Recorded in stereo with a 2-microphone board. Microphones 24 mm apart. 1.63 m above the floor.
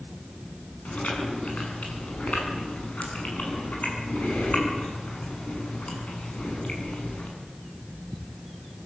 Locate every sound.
0.8 s chewing: 65° left (ahead or behind), 8 m